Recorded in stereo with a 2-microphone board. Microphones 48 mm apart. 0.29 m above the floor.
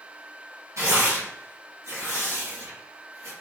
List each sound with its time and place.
0.8 s tearing paper: 80° right, 3 m